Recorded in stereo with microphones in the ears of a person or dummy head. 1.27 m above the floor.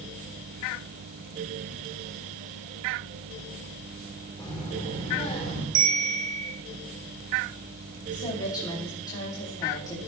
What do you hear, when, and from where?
4.4 s a child speaking: 20° left (ahead or behind), 2.5 m; by 5.7 s 30° left (ahead or behind), 3 m
5.8 s a bell: 85° right, 3 m
8.1 s a woman speaking: 20° left (ahead or behind), 2 m